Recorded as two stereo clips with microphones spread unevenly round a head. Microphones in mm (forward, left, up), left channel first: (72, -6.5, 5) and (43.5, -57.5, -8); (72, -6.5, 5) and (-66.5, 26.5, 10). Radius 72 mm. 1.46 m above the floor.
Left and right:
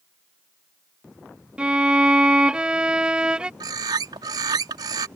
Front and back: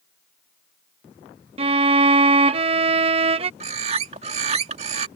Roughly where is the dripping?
I don't hear dripping.